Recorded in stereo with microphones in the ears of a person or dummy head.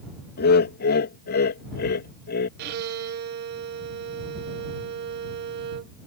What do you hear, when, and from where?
0.4 s laughter: 60° left (ahead or behind)
2.6 s a violin: 60° right (ahead or behind)